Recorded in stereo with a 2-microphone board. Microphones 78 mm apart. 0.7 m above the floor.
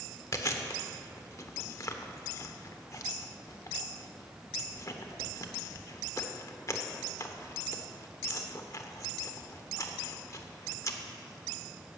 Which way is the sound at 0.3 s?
45° left (ahead or behind).